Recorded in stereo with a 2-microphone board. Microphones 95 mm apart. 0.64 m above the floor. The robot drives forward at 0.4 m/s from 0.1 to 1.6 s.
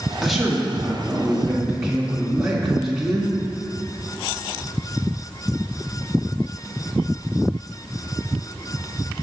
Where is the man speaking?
Centre (ahead or behind), 1.0 m.